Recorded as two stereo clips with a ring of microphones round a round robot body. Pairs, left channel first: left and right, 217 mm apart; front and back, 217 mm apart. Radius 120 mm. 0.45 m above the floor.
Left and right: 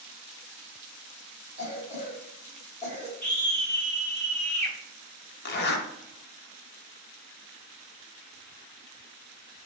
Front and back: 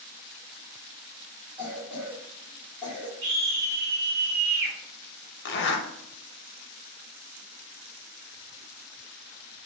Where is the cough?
105° right, 1.1 m.